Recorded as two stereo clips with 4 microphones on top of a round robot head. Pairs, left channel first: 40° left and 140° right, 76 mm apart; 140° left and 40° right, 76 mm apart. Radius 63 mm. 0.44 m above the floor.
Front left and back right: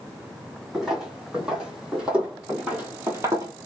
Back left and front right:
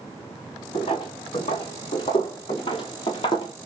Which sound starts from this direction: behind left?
Footsteps, at 0.7 s.